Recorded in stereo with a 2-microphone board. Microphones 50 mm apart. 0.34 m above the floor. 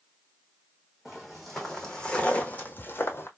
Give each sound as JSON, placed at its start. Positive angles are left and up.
{"t": 1.1, "sound": "footsteps", "side_deg": -5, "distance_m": 1.3}